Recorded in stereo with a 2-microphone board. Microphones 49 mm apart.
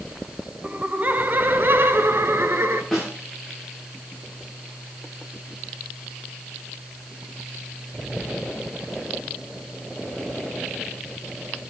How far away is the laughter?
About 1.2 m.